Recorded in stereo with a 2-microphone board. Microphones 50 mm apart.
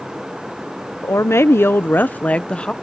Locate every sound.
1.0 s a woman speaking: 70° left (ahead or behind); by 2.7 s 20° left (ahead or behind)